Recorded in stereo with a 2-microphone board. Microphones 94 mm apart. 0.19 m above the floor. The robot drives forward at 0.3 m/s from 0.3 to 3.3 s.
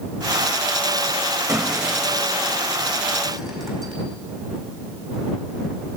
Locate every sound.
1.5 s breaking glass: 35° right (ahead or behind), 6 m; by 3.9 s 40° right (ahead or behind), 5.5 m